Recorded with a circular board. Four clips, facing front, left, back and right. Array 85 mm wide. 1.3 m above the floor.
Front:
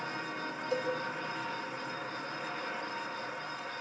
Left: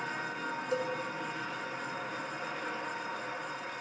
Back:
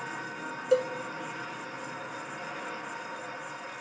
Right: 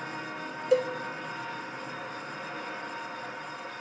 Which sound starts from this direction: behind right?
A cowbell, at 0.7 s.